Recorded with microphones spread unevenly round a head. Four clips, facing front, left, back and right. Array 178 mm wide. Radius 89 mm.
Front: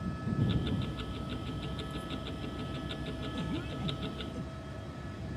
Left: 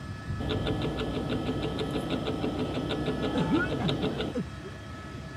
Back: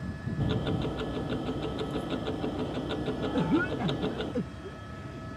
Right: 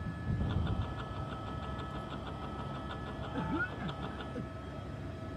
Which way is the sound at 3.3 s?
145° left.